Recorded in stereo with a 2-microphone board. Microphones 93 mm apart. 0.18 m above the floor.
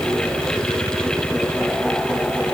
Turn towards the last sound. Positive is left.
No sound to turn to.